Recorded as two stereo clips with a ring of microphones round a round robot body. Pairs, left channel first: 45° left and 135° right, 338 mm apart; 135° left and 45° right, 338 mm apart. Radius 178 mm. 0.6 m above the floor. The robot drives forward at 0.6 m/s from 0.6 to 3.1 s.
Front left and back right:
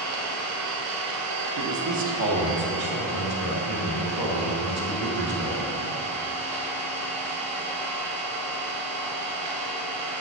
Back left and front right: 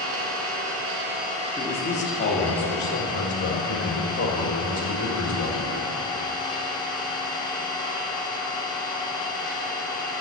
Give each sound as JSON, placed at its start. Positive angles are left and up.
{"t": 0.0, "sound": "an engine running", "azimuth_deg": -90, "distance_m": 1.0}
{"t": 1.6, "sound": "a man speaking", "azimuth_deg": -150, "distance_m": 0.8}